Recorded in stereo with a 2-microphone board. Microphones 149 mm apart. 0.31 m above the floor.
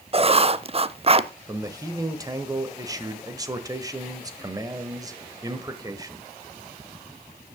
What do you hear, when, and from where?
0.1 s writing: 40° right (ahead or behind), 0.5 m
1.5 s a man speaking: 25° right (ahead or behind), 1.2 m